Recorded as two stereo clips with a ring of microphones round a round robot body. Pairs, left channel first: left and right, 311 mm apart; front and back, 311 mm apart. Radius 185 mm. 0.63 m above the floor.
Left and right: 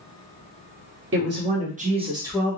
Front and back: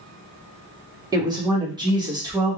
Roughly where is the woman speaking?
Right.